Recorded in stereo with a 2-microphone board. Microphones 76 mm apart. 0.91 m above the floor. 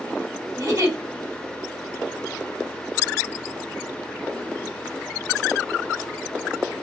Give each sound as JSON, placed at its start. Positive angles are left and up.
{"t": 0.6, "sound": "a giggle", "side_deg": -50, "distance_m": 2.0}